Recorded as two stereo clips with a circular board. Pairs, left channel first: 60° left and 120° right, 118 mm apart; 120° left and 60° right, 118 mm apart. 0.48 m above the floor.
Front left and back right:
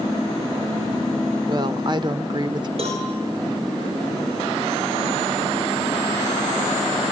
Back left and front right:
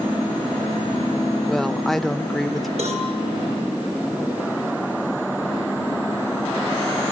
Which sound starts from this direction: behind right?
A woman speaking, at 1.5 s.